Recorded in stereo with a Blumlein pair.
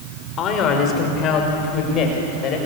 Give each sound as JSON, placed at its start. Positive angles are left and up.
{"t": 0.4, "sound": "a man speaking", "azimuth_deg": 30, "distance_m": 5.5}